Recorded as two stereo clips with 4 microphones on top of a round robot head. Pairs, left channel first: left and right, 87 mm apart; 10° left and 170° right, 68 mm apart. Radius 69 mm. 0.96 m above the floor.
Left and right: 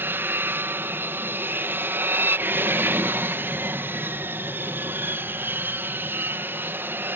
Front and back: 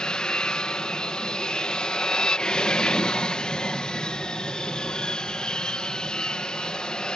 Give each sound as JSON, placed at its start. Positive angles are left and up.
{"t": 0.0, "sound": "an aircraft", "azimuth_deg": -55}